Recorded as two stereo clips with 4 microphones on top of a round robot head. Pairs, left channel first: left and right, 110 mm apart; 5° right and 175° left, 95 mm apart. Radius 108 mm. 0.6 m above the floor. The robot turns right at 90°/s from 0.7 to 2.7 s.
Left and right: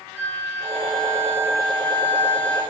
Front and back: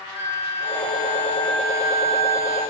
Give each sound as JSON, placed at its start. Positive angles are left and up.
{"t": 0.1, "sound": "a flute", "azimuth_deg": 10, "distance_m": 2.5}